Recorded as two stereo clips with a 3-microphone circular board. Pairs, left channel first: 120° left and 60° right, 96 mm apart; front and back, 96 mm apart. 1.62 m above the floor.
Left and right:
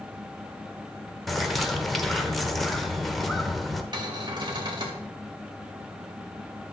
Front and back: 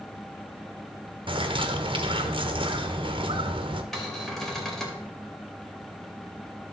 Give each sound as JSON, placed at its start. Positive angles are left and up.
{"t": 1.3, "sound": "a bird", "azimuth_deg": -150, "distance_m": 0.9}
{"t": 3.9, "sound": "a cupboard door", "azimuth_deg": -85, "distance_m": 2.5}